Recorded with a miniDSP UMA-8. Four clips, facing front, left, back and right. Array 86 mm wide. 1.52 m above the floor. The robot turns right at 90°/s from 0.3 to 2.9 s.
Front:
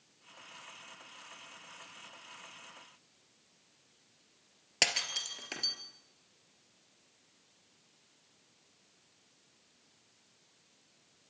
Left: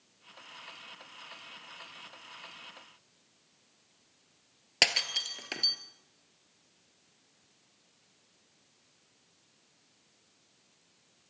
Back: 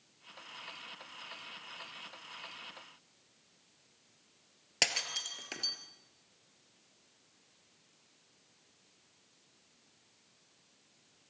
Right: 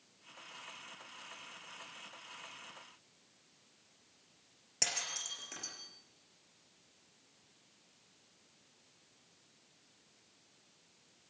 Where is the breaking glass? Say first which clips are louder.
Left 10 dB, front 1 dB; 85° left, 2 m.